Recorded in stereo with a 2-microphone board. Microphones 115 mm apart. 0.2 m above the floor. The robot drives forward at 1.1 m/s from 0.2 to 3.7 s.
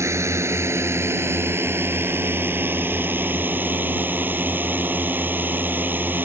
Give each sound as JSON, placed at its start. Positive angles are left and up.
{"t": 0.0, "sound": "a drone", "side_deg": -25}